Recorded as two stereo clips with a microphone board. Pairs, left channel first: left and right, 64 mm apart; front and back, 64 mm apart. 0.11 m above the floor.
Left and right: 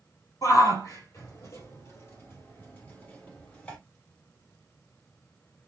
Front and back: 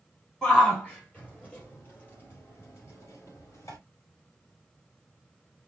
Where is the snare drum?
I don't hear a snare drum.